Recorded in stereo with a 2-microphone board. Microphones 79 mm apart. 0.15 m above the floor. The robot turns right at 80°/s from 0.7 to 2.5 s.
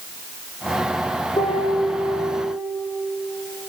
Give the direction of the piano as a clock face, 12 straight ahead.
10 o'clock.